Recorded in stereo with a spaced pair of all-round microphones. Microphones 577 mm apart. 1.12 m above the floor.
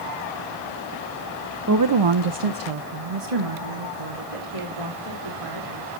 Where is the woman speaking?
25° right (ahead or behind), 0.5 m; by 6.0 s 65° right (ahead or behind), 3 m.